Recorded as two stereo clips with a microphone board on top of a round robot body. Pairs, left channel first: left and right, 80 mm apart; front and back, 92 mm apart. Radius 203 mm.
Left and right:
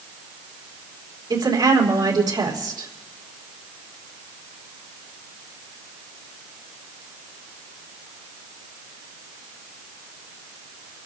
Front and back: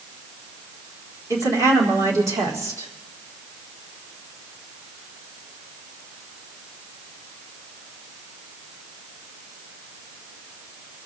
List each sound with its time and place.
1.3 s a woman speaking: 125° right, 4 m